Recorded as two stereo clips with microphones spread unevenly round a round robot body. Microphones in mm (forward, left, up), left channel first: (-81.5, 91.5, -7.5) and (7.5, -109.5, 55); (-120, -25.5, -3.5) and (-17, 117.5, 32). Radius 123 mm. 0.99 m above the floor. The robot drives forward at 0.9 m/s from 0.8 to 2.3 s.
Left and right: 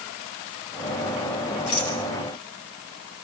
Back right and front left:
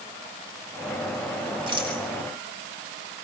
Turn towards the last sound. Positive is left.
turn(degrees=120)